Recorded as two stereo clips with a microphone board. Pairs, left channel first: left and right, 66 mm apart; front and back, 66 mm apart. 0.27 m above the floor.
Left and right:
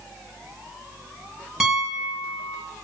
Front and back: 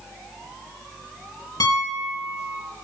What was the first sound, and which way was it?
A piano, 10° right.